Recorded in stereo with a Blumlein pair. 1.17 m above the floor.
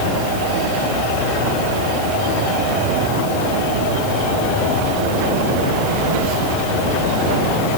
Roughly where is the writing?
No writing in this recording.